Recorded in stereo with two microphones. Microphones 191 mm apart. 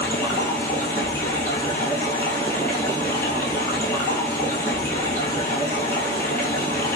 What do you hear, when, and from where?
0.0 s running water: 10° left (ahead or behind), 1.3 m